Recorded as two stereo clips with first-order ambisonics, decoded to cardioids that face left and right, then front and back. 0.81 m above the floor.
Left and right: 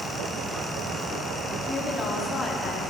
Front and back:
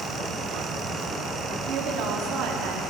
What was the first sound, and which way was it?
A woman speaking, 160° left.